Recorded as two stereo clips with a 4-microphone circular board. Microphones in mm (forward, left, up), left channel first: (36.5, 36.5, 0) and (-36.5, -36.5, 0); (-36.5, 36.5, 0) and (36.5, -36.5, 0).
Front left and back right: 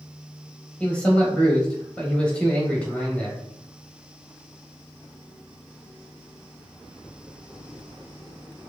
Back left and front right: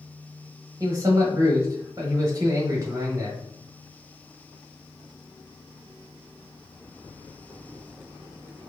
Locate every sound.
0.8 s a man speaking: 25° right, 1.1 m